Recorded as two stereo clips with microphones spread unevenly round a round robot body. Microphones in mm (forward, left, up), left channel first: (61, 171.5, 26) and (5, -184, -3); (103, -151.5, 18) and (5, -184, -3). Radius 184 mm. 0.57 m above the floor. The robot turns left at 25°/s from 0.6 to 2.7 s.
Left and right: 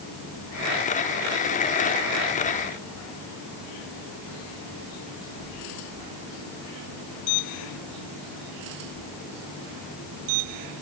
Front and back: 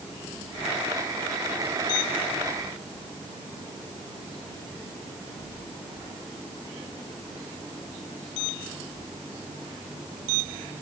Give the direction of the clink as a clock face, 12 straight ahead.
No clink in this recording.